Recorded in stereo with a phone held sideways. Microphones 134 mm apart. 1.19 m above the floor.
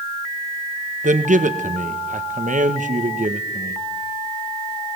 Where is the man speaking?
70° right (ahead or behind), 1.3 m.